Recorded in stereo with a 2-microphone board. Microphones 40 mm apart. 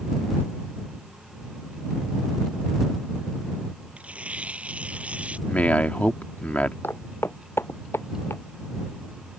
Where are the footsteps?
70° left (ahead or behind); by 8.4 s 80° left.